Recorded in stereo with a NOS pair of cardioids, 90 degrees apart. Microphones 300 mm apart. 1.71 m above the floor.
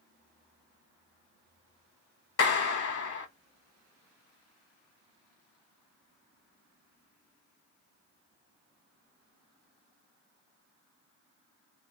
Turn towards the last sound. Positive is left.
turn(degrees=50)